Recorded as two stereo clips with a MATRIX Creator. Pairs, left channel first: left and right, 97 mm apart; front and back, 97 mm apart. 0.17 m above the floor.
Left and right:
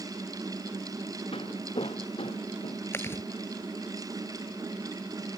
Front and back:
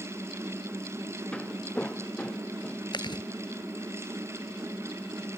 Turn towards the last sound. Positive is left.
turn(degrees=30)